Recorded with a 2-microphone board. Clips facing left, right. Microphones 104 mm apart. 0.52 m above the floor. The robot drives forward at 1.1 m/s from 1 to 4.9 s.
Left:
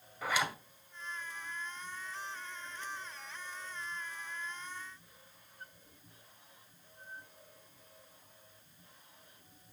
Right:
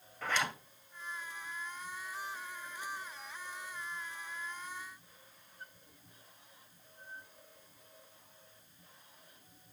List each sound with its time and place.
0.2 s a zipper: 10° left (ahead or behind), 2 m